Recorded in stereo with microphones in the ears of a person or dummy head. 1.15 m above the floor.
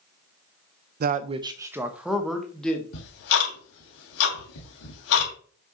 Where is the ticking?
75° left (ahead or behind), 3 m.